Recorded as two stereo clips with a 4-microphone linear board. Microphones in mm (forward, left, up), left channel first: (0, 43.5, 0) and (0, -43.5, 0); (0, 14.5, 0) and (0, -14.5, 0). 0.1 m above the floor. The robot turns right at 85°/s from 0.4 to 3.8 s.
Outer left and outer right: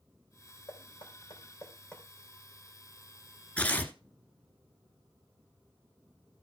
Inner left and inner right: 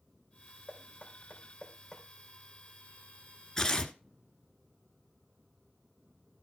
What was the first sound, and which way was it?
Knocking, 55° left (ahead or behind).